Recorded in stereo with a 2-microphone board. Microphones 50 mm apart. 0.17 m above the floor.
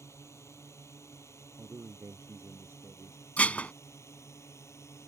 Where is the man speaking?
55° right (ahead or behind).